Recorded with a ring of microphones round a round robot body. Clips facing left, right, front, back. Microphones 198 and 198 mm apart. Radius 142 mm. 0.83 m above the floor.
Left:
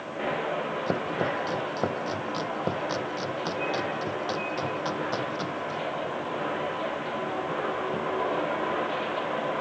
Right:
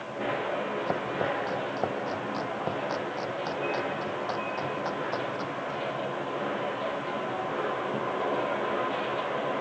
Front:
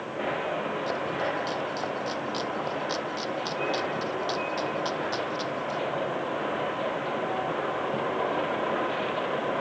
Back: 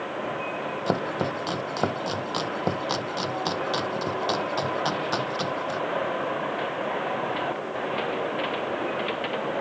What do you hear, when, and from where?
0.9 s chopping: 160° left